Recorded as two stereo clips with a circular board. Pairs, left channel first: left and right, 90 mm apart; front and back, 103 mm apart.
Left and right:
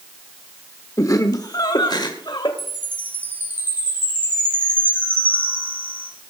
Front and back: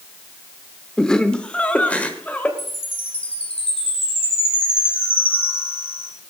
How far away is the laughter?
About 1.0 m.